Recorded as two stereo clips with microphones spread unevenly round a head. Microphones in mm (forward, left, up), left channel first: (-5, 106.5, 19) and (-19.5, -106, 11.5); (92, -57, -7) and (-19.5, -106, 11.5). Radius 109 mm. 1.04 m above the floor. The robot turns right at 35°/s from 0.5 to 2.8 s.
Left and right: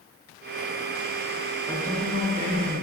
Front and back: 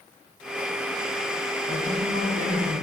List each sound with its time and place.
1.7 s a man speaking: straight behind, 3.5 m; by 2.8 s 140° right, 3.5 m